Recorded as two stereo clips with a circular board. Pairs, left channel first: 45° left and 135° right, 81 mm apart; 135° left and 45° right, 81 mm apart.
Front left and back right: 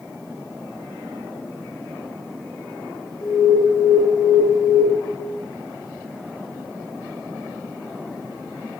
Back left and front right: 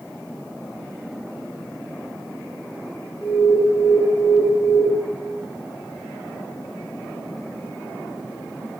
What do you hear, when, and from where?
3.2 s an alarm: 60° left, 7.5 m